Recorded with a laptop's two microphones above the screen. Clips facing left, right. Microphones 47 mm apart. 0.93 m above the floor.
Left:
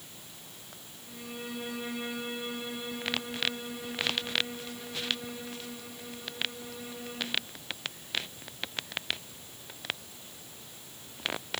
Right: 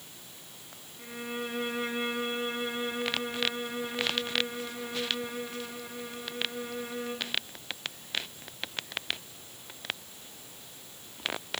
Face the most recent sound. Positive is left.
turn(degrees=-60)  # may be behind; listen again after turning